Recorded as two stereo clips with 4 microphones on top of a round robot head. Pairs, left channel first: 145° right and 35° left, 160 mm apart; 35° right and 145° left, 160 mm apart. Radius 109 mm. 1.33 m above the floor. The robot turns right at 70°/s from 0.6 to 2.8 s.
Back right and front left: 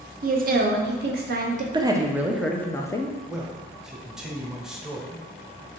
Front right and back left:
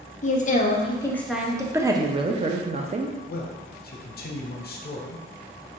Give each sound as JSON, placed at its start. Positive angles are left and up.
{"t": 0.2, "sound": "a woman speaking", "azimuth_deg": 5, "distance_m": 0.6}
{"t": 1.7, "sound": "a woman speaking", "azimuth_deg": 80, "distance_m": 0.5}
{"t": 3.3, "sound": "a man speaking", "azimuth_deg": -55, "distance_m": 0.7}